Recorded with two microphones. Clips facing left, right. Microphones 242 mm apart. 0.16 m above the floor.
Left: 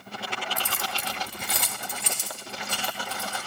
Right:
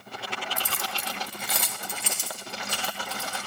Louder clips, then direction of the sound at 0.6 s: Left 1 dB; 15° right (ahead or behind).